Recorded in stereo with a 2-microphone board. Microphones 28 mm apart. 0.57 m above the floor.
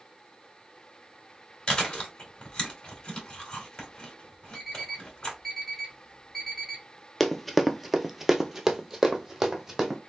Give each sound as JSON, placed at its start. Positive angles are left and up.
{"t": 1.7, "sound": "chewing", "side_deg": 25, "distance_m": 2.0}
{"t": 4.5, "sound": "an alarm clock", "side_deg": 0, "distance_m": 2.0}
{"t": 7.2, "sound": "running footsteps", "side_deg": 5, "distance_m": 0.6}